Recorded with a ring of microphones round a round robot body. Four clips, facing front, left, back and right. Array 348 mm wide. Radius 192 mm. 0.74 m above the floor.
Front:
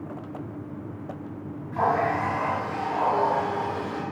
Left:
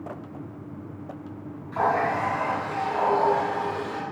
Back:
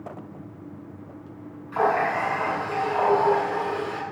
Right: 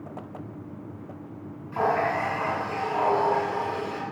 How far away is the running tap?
About 6 m.